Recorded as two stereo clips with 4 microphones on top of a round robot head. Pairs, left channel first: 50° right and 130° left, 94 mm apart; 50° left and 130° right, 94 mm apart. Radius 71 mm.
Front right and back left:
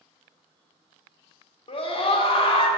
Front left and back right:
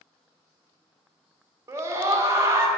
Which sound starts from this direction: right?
A scream, at 1.7 s.